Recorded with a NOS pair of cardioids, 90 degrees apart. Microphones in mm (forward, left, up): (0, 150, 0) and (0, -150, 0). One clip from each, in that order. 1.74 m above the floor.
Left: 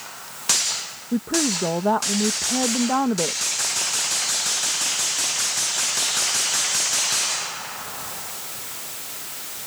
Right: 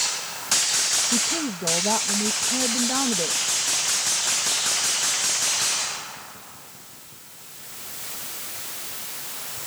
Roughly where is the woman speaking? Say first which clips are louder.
Left 1 dB; ahead left.